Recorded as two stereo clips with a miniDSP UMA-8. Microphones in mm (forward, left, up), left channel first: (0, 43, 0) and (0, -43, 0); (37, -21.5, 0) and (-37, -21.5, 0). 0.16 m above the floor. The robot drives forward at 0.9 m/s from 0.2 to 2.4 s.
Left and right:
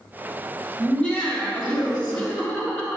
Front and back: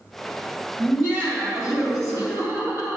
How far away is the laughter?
About 1.7 m.